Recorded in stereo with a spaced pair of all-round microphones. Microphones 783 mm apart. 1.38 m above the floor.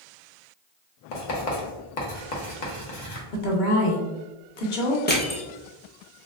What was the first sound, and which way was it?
Writing, 65° left (ahead or behind).